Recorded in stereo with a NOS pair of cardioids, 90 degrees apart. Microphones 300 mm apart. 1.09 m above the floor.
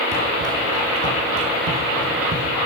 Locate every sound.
0.1 s running footsteps: 55° right, 3.5 m